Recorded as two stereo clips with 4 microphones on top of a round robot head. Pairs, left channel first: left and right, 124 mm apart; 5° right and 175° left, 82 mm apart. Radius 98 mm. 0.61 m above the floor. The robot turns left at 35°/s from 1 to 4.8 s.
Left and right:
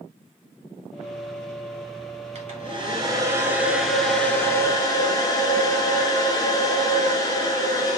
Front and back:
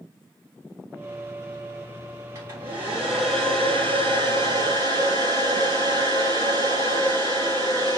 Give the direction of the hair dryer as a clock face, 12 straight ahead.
4 o'clock.